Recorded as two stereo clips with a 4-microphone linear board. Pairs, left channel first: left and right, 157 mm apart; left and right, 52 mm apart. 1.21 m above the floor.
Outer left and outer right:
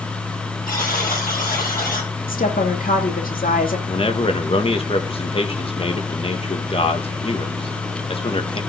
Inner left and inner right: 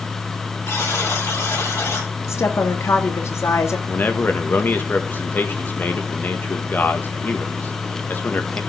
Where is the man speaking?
35° left (ahead or behind), 1.6 m.